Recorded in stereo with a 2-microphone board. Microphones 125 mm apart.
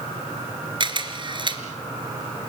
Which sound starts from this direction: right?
A camera shutter, at 0.8 s.